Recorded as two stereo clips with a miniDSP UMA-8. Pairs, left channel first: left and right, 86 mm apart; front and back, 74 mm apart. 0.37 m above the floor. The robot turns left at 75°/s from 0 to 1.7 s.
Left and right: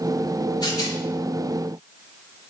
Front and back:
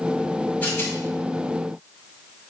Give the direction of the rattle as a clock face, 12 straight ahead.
10 o'clock.